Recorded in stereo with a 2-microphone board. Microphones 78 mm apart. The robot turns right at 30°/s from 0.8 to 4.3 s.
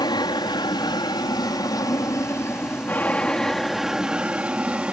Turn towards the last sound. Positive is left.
turn(degrees=-165)